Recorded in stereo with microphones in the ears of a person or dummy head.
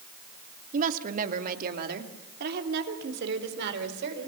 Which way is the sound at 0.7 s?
45° right (ahead or behind).